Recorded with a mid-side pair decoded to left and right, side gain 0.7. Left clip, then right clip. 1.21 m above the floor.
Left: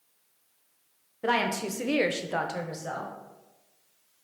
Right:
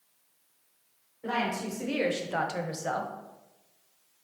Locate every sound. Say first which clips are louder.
1.2 s a woman speaking: left 4 dB; 60° left, 0.7 m; by 3.1 s 35° right, 0.6 m